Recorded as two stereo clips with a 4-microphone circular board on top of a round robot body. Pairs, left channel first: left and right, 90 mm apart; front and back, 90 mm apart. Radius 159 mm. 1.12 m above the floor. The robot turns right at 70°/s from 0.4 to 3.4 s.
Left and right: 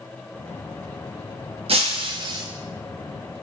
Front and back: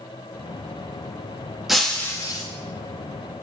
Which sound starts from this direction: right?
Breaking glass, at 1.7 s.